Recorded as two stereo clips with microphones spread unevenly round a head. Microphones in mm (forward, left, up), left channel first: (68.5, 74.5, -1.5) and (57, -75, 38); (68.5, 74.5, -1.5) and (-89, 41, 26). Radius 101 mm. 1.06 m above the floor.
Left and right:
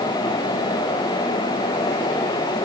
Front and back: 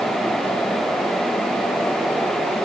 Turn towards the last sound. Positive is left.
No sound to turn to.